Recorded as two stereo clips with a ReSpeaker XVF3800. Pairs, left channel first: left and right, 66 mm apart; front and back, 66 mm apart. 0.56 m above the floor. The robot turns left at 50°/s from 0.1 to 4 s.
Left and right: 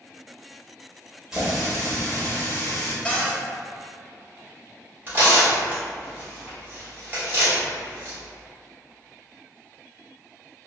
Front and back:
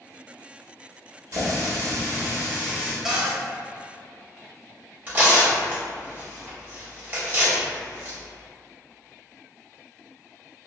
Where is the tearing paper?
135° right, 1.1 m.